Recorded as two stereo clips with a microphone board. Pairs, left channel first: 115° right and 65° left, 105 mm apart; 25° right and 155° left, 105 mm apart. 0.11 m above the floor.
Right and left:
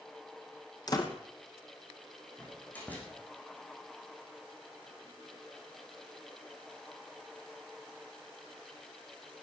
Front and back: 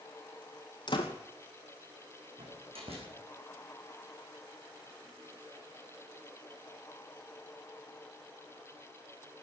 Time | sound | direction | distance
0.9 | a door slam | 65° right | 2.5 m
2.4 | a door slam | 175° left | 6 m